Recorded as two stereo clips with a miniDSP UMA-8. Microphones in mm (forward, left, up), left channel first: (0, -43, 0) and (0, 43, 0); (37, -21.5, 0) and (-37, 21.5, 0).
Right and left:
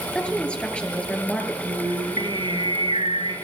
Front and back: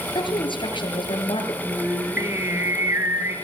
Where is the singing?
90° left, 6 m.